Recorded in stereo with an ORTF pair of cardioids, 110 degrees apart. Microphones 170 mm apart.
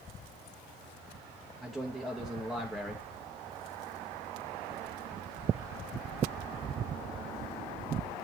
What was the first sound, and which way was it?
A man speaking, straight ahead.